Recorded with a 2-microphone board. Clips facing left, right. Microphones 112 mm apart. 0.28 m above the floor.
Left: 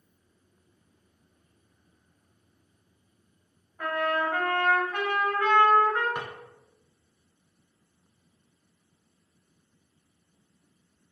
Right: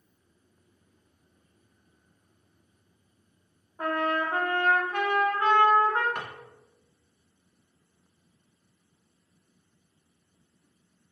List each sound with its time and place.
3.8 s a trumpet: 30° right (ahead or behind), 0.7 m
6.2 s a drawer: 10° left (ahead or behind), 0.8 m